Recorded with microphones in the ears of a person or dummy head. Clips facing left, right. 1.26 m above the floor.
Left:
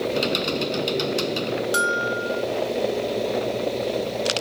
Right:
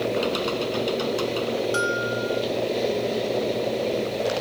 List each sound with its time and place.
0.1 s typing on a keyboard: 30° left (ahead or behind)
1.7 s a bell: 25° left (ahead or behind)